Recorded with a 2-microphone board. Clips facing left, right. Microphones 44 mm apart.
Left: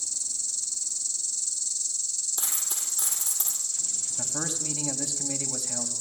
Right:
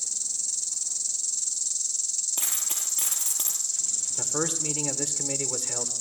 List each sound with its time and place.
0.0 s an insect: 65° right (ahead or behind), 1.4 m
2.4 s a dropped coin: 85° right, 5 m
4.2 s a man speaking: 65° right (ahead or behind), 2.0 m